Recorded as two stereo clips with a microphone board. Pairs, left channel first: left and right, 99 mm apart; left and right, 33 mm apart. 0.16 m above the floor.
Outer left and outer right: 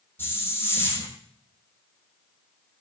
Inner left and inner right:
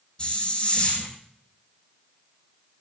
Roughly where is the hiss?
Left.